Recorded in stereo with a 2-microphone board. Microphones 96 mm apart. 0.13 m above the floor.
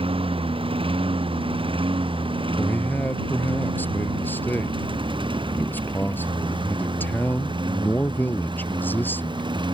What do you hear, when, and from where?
0.0 s a lawn mower: 70° right (ahead or behind); by 9.7 s 55° right (ahead or behind)
2.6 s a man speaking: 20° left (ahead or behind)